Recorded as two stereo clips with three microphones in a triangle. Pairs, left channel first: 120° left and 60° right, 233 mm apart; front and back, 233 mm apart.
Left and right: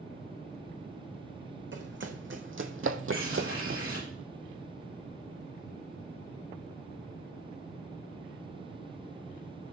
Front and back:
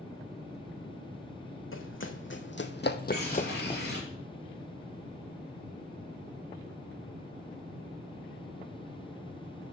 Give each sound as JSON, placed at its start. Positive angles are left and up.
{"t": 1.7, "sound": "running footsteps", "azimuth_deg": -25, "distance_m": 1.5}
{"t": 3.1, "sound": "a bird", "azimuth_deg": -40, "distance_m": 4.0}